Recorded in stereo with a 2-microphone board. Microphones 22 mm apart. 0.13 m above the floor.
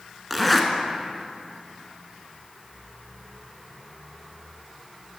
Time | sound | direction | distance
0.3 | a zipper | 5° left (ahead or behind) | 0.8 m